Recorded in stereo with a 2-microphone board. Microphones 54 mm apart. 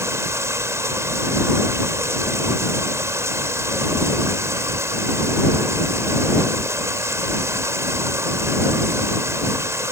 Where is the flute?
No flute in this recording.